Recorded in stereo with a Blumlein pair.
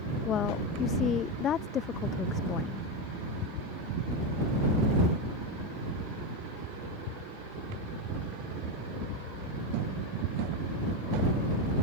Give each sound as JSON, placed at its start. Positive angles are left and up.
{"t": 0.2, "sound": "a woman speaking", "azimuth_deg": 30}